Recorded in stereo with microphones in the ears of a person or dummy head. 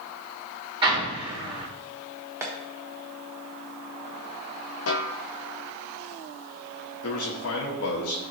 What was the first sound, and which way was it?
An explosion, 30° right (ahead or behind).